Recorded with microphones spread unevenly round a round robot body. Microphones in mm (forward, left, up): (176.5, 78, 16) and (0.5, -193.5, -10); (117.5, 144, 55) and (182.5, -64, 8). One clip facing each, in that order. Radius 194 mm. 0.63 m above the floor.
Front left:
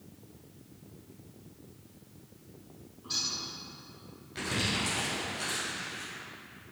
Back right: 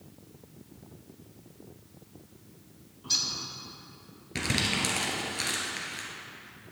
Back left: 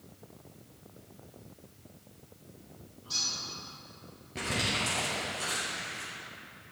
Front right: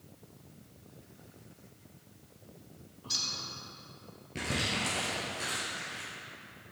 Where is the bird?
80° right, 1.5 m.